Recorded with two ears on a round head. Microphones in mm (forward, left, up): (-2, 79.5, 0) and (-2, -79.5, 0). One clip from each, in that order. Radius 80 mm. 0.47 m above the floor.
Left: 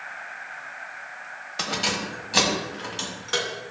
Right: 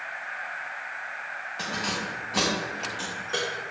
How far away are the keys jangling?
About 1.4 m.